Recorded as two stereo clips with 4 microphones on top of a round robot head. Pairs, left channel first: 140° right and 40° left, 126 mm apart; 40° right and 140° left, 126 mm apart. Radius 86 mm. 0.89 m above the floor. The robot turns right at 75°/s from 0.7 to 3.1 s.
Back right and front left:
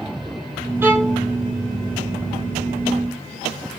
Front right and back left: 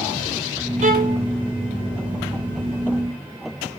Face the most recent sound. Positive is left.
turn(degrees=-75)